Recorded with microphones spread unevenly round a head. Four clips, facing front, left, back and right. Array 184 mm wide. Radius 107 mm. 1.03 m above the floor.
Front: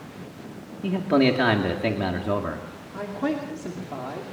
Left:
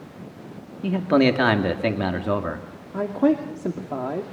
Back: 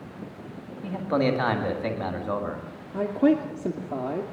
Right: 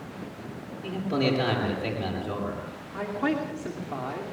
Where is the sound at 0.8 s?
65° left, 2.5 m.